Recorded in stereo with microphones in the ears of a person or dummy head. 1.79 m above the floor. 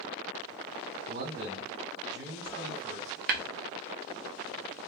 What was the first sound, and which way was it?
A man speaking, 70° right (ahead or behind).